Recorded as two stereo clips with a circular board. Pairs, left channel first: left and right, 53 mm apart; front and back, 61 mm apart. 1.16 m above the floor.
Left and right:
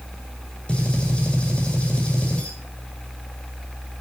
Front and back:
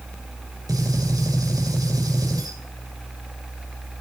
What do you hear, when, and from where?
0.7 s a gunshot: 160° left, 6 m